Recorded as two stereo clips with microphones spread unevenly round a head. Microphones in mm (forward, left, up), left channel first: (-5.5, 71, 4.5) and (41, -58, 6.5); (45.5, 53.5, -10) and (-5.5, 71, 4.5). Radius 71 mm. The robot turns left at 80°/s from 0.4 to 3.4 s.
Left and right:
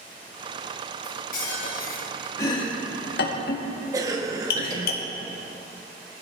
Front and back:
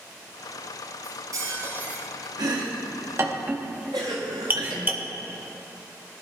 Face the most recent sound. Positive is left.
turn(degrees=-140)